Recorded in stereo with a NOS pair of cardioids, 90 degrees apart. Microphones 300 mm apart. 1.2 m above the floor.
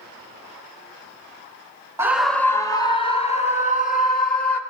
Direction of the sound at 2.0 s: 10° right.